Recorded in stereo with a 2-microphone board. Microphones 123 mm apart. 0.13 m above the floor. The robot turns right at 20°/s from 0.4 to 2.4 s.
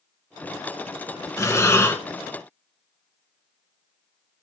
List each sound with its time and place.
1.4 s breathing: 25° left (ahead or behind), 1.1 m; by 2.0 s 20° left (ahead or behind), 1.1 m